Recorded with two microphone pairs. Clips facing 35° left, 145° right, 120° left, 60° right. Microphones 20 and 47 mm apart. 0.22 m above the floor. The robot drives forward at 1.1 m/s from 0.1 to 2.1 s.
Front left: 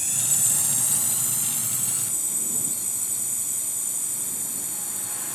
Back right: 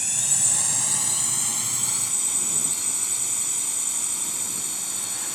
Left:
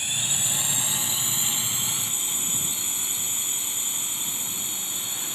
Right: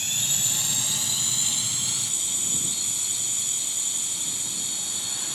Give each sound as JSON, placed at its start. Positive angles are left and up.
{"t": 0.0, "sound": "a drone", "azimuth_deg": 170}